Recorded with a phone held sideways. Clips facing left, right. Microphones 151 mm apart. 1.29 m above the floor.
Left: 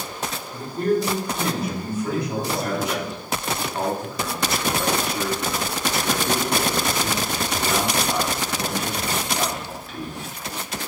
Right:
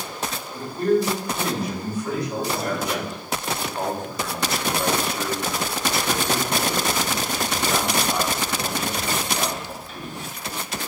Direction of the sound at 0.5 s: 25° left (ahead or behind).